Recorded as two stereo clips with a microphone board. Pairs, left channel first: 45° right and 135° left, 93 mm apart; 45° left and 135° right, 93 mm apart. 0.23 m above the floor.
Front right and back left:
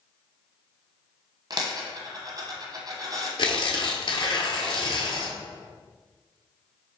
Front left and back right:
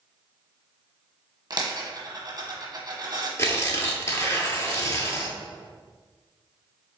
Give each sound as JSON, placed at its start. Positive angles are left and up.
{"t": 1.5, "sound": "a dropped coin", "azimuth_deg": 180, "distance_m": 1.1}
{"t": 3.4, "sound": "tearing paper", "azimuth_deg": -15, "distance_m": 0.8}